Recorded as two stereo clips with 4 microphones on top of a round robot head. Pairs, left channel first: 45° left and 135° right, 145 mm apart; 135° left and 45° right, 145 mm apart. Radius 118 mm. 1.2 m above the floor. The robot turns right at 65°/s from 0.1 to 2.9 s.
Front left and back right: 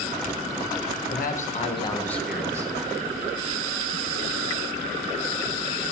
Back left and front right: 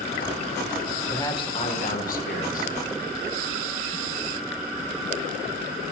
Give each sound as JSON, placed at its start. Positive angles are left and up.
{"t": 1.1, "sound": "a man speaking", "azimuth_deg": 60, "distance_m": 1.5}